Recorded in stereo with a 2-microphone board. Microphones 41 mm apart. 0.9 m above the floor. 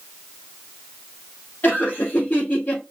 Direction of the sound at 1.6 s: 55° left (ahead or behind).